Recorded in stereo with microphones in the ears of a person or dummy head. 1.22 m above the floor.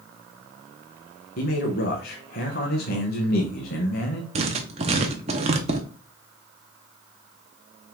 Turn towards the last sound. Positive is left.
turn(degrees=-35)  # may be behind; listen again after turning